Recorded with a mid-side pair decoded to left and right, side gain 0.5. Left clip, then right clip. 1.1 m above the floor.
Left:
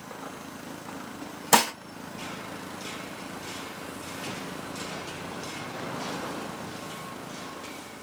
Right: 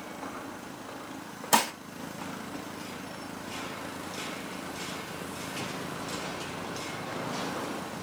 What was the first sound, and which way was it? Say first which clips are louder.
Dishes clattering: left 4 dB; 30° left.